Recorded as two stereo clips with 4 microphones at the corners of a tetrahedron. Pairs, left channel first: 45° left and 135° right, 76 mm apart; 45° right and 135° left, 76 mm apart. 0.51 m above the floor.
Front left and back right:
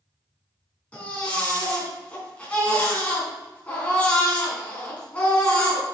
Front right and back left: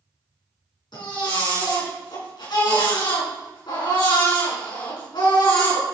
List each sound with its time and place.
0.9 s a baby crying: 30° right, 4.5 m